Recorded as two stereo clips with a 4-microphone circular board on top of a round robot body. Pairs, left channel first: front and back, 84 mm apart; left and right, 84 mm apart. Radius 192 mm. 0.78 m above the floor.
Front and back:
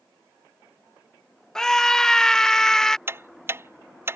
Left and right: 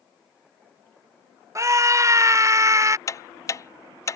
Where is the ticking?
130° left.